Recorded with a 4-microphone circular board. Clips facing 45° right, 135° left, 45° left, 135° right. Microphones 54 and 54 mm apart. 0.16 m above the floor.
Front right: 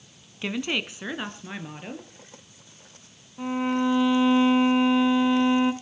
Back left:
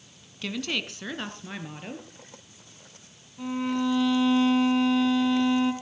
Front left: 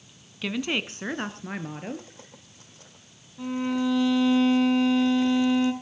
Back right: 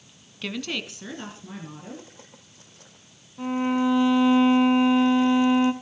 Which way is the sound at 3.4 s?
90° right.